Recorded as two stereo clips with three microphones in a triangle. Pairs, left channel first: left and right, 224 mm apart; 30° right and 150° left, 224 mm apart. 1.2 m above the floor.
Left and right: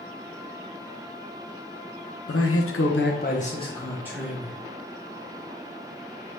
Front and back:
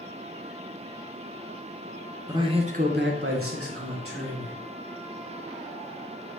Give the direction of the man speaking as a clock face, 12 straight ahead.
9 o'clock.